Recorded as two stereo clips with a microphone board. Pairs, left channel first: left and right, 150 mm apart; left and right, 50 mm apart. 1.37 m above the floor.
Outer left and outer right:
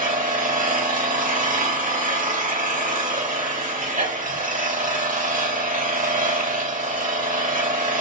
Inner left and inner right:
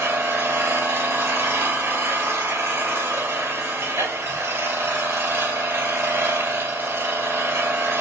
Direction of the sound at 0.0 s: 65° right (ahead or behind).